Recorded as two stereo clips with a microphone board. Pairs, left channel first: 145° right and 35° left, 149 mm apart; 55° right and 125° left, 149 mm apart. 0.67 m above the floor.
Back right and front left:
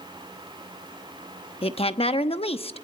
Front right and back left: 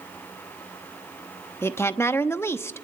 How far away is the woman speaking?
About 0.9 m.